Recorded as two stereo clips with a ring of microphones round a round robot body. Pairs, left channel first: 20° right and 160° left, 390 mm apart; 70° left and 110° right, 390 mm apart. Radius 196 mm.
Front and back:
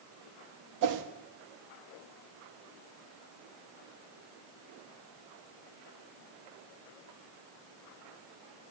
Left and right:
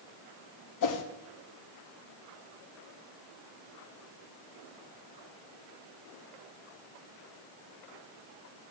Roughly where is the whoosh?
Left.